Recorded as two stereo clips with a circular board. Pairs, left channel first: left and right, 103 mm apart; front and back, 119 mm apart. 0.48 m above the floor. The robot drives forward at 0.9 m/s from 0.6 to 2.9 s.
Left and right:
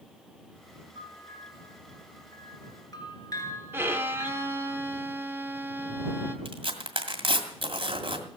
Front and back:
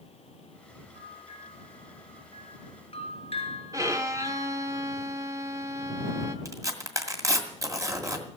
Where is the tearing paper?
120° right, 2.0 m.